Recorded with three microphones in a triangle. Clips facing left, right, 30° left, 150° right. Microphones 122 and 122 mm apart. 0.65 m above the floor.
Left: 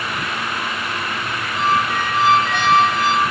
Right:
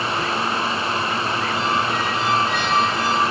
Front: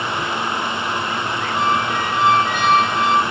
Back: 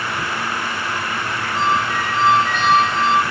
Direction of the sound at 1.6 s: 110° left.